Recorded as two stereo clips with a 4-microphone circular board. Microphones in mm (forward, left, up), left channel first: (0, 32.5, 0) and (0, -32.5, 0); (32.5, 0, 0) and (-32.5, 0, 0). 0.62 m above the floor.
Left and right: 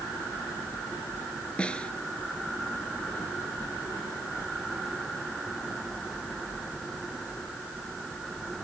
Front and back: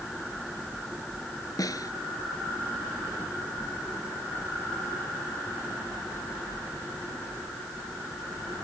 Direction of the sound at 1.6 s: 15° left.